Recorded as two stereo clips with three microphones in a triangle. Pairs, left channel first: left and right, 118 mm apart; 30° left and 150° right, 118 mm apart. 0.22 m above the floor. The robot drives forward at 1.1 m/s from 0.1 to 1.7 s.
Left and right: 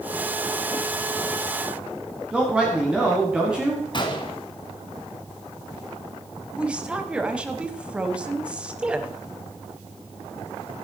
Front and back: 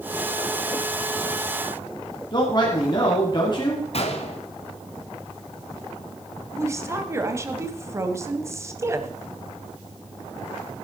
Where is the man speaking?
10° right, 2 m.